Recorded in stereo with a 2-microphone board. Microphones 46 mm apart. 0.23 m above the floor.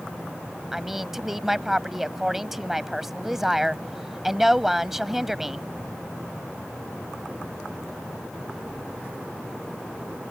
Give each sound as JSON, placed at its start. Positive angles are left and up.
{"t": 0.7, "sound": "a woman speaking", "side_deg": -5}